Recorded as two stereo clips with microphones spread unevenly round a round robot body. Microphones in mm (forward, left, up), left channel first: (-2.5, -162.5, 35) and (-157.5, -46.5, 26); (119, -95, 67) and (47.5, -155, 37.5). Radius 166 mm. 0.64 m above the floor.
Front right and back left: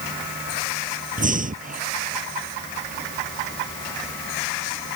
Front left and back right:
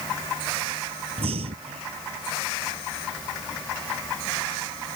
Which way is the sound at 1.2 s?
170° right.